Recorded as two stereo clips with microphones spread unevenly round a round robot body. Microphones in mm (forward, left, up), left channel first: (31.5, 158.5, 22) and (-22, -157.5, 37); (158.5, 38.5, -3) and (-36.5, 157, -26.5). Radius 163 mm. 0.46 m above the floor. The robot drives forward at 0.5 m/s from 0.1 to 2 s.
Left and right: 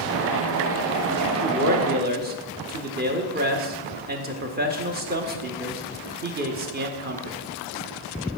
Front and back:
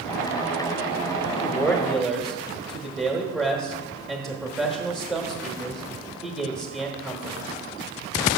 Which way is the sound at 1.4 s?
85° right.